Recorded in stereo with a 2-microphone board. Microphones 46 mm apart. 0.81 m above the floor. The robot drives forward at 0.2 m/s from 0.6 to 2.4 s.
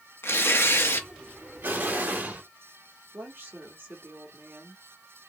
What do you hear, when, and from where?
0.2 s tearing paper: 55° left (ahead or behind), 0.9 m; by 1.1 s 50° left (ahead or behind), 1.0 m
1.6 s an explosion: 45° right (ahead or behind), 2 m
3.1 s a woman speaking: 50° right (ahead or behind), 1.9 m